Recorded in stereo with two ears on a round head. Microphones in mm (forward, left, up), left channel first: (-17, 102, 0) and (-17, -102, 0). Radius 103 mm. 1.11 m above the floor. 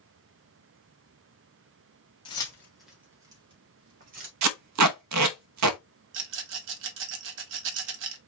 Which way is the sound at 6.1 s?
55° right (ahead or behind).